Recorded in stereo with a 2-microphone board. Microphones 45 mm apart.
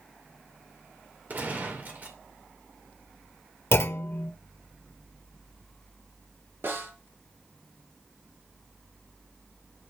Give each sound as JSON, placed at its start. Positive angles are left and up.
{"t": 1.3, "sound": "a gunshot", "side_deg": -40, "distance_m": 1.9}
{"t": 3.7, "sound": "a clunk", "side_deg": 65, "distance_m": 0.7}
{"t": 6.6, "sound": "a snare drum", "side_deg": -55, "distance_m": 3.5}